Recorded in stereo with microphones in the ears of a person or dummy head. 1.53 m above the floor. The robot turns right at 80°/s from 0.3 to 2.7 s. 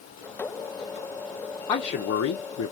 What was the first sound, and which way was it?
A man speaking, 20° left.